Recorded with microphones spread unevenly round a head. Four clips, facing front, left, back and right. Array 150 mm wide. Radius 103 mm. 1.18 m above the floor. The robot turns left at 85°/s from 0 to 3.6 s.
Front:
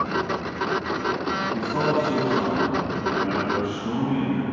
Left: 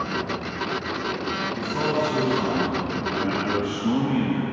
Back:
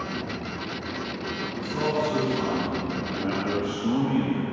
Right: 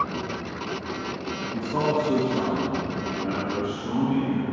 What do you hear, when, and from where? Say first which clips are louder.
1.5 s a man speaking: right 2 dB, front 2 dB; 40° right, 1.8 m; by 4.4 s 145° left, 1.8 m